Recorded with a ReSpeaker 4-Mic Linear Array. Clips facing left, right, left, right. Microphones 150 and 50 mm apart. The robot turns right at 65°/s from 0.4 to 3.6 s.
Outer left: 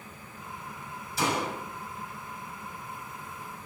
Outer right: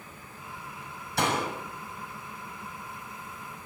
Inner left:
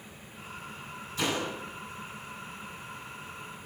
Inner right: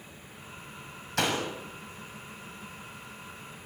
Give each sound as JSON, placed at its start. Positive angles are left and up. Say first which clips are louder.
{"t": 1.2, "sound": "a door slam", "louder": "outer right 1 dB, inner right 2 dB", "side_deg": -65, "distance_m": 6.5}